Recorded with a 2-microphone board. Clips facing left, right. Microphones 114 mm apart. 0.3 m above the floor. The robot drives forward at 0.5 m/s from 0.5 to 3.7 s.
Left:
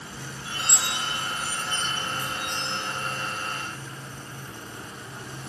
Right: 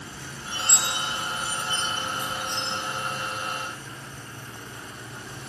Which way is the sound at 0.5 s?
5° left (ahead or behind).